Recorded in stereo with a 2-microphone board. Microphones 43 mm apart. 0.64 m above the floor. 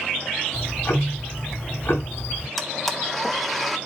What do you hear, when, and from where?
0.5 s ticking: 60° left (ahead or behind), 2.0 m
2.6 s a blender: centre (ahead or behind), 1.1 m